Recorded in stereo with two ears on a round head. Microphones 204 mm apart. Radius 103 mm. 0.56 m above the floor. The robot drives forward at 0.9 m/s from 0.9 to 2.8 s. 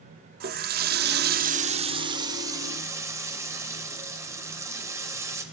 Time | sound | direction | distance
0.4 | a running tap | 40° right (ahead or behind) | 0.6 m